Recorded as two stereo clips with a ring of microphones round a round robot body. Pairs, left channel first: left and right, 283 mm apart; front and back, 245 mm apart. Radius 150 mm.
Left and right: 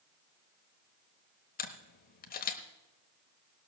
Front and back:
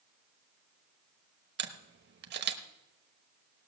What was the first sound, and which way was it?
A camera shutter, 145° left.